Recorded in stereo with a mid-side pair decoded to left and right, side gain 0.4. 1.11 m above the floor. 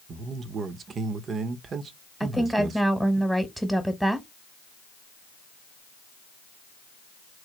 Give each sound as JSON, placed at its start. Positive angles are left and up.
{"t": 0.1, "sound": "a man speaking", "azimuth_deg": -60, "distance_m": 0.9}
{"t": 2.2, "sound": "a woman speaking", "azimuth_deg": -5, "distance_m": 1.2}